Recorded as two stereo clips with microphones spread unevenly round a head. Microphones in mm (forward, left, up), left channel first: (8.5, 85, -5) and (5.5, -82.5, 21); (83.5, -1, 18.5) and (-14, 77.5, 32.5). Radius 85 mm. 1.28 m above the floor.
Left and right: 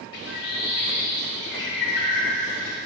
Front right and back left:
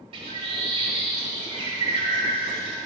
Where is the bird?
110° left, 1.7 m.